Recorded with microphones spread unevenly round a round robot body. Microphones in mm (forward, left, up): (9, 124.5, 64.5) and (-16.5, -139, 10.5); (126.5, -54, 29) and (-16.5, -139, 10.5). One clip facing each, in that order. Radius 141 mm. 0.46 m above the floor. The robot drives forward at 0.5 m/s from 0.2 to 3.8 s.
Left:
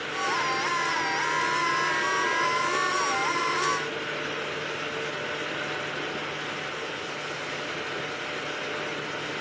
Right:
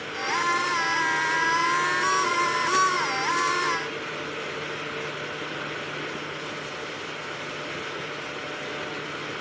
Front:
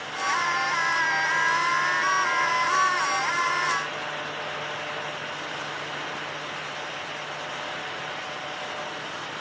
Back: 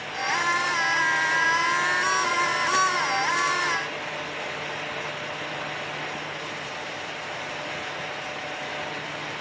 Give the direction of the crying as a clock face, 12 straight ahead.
I don't hear crying.